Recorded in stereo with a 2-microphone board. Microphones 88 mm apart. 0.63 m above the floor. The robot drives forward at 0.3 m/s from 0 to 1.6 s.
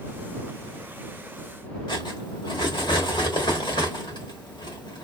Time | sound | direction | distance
1.9 | cutlery clinking | 70° left (ahead or behind) | 1.2 m